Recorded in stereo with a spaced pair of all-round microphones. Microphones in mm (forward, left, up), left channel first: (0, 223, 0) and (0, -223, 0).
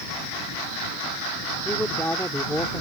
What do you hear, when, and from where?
1.6 s a man speaking: 5° left (ahead or behind)